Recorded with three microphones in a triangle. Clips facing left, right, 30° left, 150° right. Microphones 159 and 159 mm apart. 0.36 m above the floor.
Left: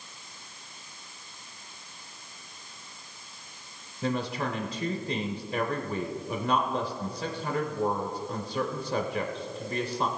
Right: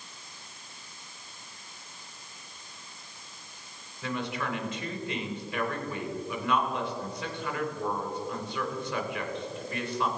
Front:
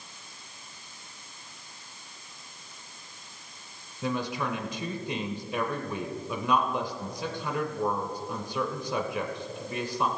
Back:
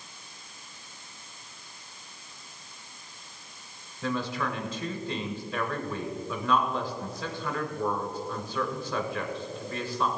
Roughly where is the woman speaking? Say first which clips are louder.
Left 3 dB, even; left.